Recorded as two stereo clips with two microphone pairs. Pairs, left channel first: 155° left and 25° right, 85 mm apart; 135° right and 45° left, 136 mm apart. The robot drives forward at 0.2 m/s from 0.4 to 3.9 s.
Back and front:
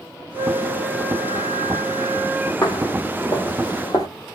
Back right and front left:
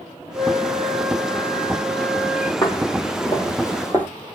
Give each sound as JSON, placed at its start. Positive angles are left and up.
{"t": 0.3, "sound": "a flute", "azimuth_deg": 115, "distance_m": 1.2}
{"t": 2.6, "sound": "footsteps", "azimuth_deg": 175, "distance_m": 1.1}